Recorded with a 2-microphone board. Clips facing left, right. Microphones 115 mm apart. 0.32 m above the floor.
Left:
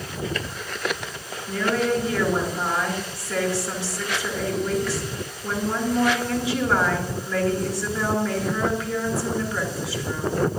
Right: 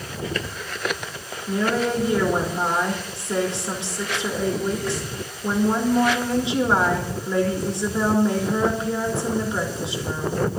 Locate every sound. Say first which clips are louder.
1.5 s a woman speaking: right 1 dB; 20° right (ahead or behind), 4 m